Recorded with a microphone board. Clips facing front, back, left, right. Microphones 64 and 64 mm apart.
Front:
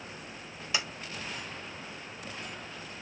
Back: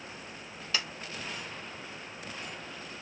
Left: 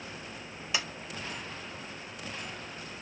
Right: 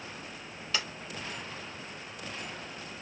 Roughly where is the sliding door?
Ahead left.